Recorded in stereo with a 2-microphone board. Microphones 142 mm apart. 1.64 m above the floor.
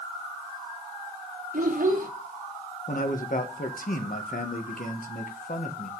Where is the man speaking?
75° left (ahead or behind), 1.8 m.